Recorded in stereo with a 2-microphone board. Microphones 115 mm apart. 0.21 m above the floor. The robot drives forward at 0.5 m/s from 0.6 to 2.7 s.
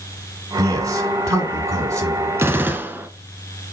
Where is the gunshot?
20° right (ahead or behind), 0.7 m.